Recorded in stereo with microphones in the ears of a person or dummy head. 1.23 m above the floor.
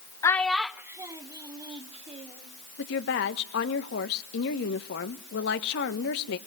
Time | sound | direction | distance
0.2 | a child speaking | 20° left (ahead or behind) | 0.8 m
2.8 | a woman speaking | 65° left (ahead or behind) | 1.5 m